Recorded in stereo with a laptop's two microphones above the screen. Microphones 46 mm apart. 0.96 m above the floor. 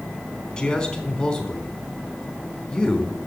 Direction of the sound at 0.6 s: 25° left (ahead or behind).